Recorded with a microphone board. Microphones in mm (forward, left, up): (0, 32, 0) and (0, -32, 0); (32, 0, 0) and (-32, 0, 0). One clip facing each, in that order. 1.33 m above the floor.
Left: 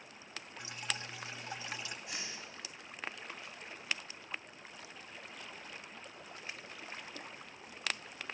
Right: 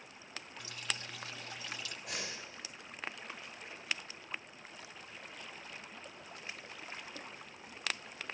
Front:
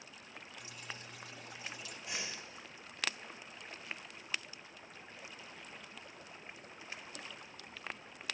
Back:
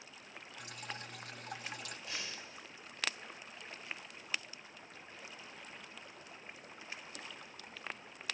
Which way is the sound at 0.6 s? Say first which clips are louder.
Left 1 dB, back 4 dB; 155° left.